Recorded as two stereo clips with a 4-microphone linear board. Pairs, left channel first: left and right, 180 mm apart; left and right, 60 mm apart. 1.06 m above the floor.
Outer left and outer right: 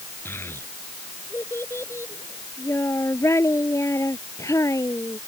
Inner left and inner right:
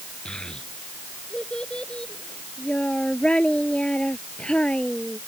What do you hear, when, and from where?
0.2 s a child speaking: 10° left (ahead or behind); by 5.2 s 15° left (ahead or behind)